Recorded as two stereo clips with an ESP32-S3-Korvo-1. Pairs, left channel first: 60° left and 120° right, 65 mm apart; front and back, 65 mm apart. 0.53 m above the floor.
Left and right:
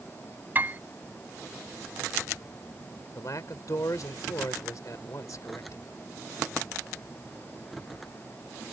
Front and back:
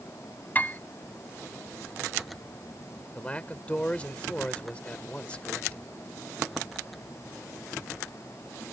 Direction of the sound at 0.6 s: 60° right.